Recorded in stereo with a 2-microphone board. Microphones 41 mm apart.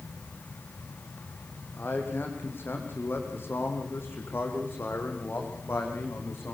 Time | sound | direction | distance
1.8 | a man speaking | 60° left (ahead or behind) | 5.5 m